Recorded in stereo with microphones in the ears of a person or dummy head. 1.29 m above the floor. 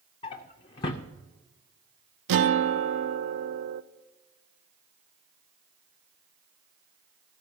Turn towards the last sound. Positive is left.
turn(degrees=-65)  # may be behind; listen again after turning